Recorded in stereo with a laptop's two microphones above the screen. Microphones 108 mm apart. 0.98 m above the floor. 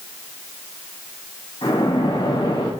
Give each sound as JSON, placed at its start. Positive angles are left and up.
{"t": 1.6, "sound": "a splash", "side_deg": 50, "distance_m": 3.5}